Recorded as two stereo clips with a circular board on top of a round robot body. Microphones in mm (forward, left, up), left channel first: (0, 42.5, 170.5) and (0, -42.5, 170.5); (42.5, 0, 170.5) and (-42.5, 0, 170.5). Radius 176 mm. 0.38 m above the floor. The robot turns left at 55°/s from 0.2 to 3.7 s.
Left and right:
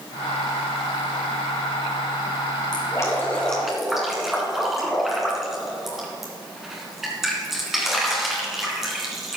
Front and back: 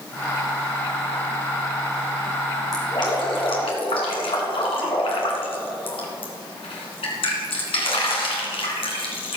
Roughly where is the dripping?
Ahead left.